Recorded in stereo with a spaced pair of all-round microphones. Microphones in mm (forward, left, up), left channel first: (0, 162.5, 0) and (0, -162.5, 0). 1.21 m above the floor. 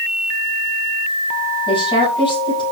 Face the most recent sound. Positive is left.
turn(degrees=15)  # may be behind; listen again after turning